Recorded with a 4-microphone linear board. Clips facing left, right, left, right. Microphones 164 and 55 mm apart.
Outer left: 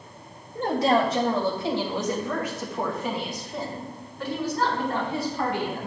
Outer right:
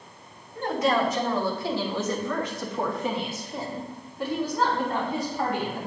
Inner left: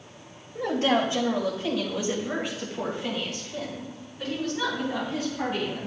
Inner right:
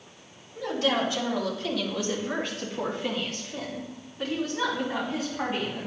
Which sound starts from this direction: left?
A woman speaking, at 0.6 s.